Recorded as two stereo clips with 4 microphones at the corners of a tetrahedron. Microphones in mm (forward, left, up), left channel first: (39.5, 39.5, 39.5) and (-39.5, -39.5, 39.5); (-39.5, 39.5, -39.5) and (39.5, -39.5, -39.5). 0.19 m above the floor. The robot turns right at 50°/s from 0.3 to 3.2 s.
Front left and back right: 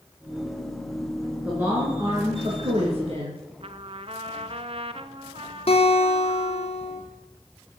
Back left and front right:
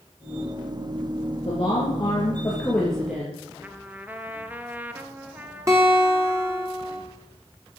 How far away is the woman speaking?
About 3.5 m.